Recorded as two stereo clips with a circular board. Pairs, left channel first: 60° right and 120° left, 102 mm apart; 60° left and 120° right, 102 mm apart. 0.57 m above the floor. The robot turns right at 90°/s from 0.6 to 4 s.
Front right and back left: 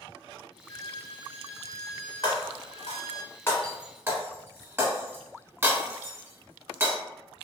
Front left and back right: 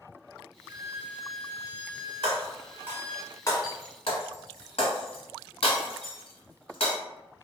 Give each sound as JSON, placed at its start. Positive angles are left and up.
{"t": 0.7, "sound": "a violin", "azimuth_deg": -80, "distance_m": 0.6}
{"t": 2.2, "sound": "breaking glass", "azimuth_deg": -105, "distance_m": 1.3}